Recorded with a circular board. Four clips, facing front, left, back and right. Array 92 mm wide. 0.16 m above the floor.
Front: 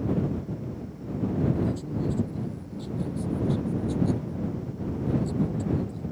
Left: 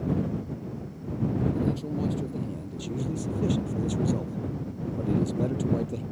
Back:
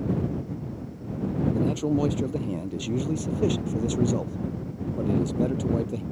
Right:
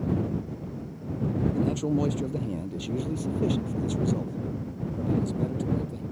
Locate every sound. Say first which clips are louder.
1.5 s a man speaking: right 3 dB, back 5 dB; 145° right; by 6.0 s 150° left